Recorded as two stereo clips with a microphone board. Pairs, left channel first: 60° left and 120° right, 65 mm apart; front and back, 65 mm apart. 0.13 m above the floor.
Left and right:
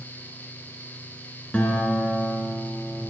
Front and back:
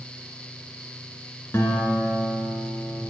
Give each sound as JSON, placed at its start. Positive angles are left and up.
{"t": 1.5, "sound": "a guitar", "azimuth_deg": 0, "distance_m": 1.4}